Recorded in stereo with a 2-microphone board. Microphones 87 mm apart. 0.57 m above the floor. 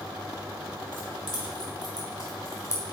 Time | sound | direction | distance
0.9 | keys jangling | 60° left (ahead or behind) | 3 m